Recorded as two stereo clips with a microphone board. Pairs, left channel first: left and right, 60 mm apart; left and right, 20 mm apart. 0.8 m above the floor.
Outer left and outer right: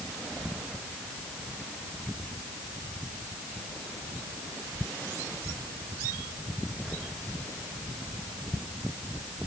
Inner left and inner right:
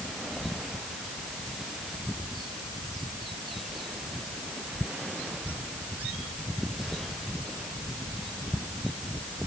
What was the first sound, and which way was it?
Only background noise.